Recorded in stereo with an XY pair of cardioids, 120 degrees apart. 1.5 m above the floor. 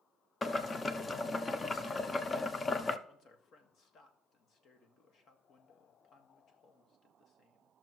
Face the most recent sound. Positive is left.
turn(degrees=50)